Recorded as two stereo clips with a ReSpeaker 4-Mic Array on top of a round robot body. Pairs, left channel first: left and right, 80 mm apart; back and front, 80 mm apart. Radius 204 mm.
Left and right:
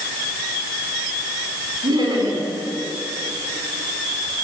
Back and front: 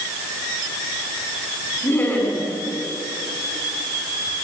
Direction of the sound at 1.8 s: 115° right.